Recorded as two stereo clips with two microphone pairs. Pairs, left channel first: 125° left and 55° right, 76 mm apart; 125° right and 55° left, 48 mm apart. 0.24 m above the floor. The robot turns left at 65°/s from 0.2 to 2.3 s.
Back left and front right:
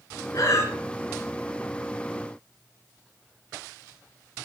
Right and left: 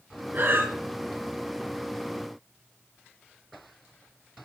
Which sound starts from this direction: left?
Breathing, at 0.3 s.